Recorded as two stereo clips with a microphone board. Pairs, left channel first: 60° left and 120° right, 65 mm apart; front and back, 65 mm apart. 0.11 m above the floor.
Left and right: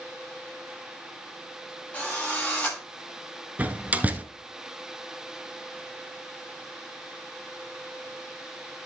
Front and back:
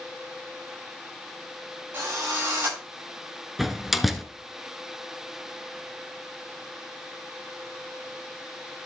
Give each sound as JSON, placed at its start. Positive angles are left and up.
{"t": 1.9, "sound": "a drill", "azimuth_deg": 130, "distance_m": 8.5}
{"t": 3.6, "sound": "a door slam", "azimuth_deg": -95, "distance_m": 1.1}